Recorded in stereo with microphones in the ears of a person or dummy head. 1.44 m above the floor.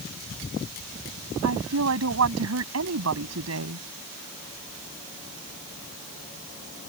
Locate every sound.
1.4 s a woman speaking: 80° right